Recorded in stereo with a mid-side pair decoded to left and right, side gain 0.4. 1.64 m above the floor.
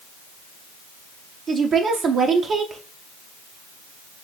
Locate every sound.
1.5 s a woman speaking: 60° right, 0.7 m